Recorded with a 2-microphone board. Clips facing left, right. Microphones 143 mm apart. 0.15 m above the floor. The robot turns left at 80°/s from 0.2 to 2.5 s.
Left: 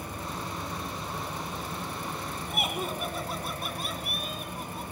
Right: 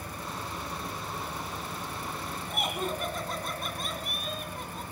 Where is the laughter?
10° left (ahead or behind), 1.4 m; by 4.8 s 5° left (ahead or behind), 1.4 m.